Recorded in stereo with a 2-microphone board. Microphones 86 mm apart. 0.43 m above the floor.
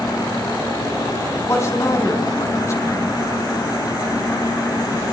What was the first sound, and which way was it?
A man speaking, 35° left (ahead or behind).